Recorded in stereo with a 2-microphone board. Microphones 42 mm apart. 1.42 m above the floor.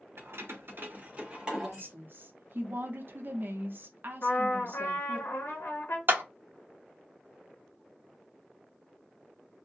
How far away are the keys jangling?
About 0.8 m.